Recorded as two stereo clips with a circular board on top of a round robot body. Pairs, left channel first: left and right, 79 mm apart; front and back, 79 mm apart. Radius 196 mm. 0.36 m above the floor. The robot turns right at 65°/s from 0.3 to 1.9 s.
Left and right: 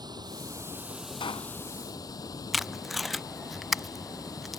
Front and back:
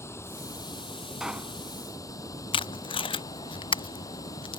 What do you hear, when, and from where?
0.0 s running water: 55° right; by 4.6 s 45° left
1.2 s a pop: 95° left; by 1.6 s 120° left
2.5 s tape being pulled: straight ahead